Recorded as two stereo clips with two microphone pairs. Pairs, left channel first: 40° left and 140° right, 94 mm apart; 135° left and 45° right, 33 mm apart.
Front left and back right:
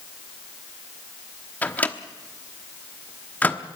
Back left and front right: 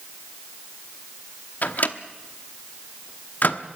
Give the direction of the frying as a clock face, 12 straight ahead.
I don't hear frying.